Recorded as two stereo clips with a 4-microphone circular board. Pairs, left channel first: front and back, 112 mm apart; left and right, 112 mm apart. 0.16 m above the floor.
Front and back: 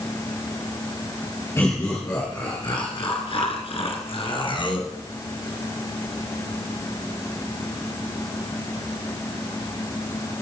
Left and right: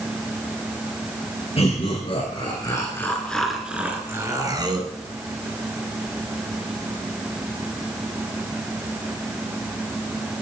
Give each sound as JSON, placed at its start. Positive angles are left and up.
{"t": 1.6, "sound": "laughter", "azimuth_deg": 65, "distance_m": 3.0}